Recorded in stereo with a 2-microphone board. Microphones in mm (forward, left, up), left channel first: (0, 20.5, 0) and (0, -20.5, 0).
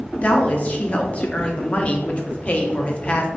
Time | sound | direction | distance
0.2 | a woman speaking | 30° left (ahead or behind) | 0.7 m